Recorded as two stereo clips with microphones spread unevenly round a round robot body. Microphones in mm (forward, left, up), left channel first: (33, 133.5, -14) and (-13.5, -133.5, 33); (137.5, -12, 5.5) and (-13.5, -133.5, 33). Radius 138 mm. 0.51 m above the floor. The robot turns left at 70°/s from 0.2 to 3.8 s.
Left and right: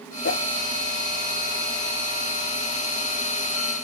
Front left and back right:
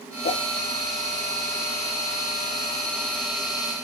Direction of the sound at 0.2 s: 65° left.